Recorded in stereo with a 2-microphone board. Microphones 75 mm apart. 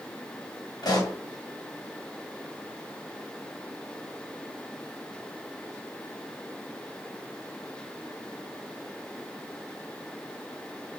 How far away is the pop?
About 1.7 m.